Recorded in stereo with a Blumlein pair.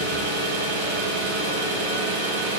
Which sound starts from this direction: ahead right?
An engine running, at 0.0 s.